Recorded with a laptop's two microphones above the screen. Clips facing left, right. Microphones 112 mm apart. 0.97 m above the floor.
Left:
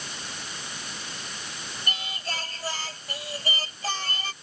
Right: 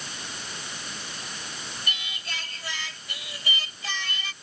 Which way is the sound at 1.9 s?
40° left (ahead or behind).